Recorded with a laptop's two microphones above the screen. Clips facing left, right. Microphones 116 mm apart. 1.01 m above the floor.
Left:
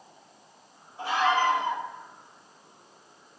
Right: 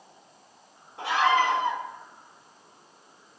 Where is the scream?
80° right, 4.5 m.